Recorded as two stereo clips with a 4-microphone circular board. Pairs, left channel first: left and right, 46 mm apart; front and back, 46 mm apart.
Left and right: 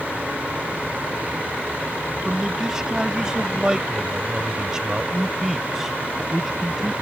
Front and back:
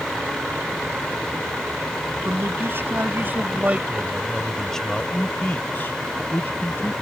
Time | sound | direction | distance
2.2 | a man speaking | 165° right | ?